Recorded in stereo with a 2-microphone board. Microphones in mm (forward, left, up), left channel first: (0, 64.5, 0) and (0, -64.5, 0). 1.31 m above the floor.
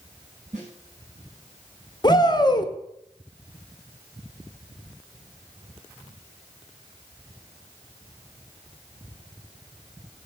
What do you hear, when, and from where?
0.5 s a snare drum: 65° right (ahead or behind), 5.5 m
2.0 s a shout: 35° left (ahead or behind), 1.2 m